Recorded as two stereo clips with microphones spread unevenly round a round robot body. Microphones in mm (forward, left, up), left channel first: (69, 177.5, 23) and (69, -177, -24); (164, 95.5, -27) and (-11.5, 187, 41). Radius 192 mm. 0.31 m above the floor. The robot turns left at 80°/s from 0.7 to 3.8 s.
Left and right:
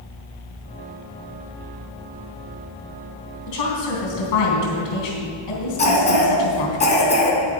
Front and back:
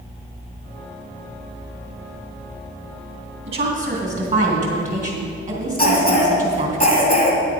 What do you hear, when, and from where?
3.5 s a woman speaking: 120° left, 3 m; by 6.8 s 90° left, 3 m
5.8 s a cough: 25° left, 3 m